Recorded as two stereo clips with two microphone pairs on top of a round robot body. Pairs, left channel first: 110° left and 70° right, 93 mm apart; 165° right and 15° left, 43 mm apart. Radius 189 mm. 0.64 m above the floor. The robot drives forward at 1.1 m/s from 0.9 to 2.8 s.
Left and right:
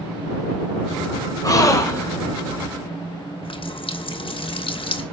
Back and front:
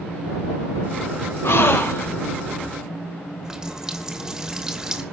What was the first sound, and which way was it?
A gasp, 165° left.